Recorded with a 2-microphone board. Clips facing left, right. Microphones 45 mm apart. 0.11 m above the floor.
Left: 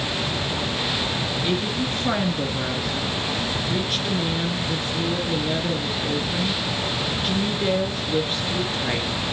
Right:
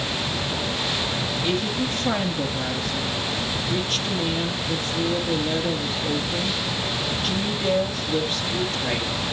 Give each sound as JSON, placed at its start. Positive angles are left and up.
{"t": 1.4, "sound": "a woman speaking", "side_deg": 10, "distance_m": 1.9}